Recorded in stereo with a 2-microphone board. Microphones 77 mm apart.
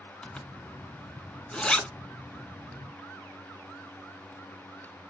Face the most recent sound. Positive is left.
turn(degrees=10)  # may be behind; listen again after turning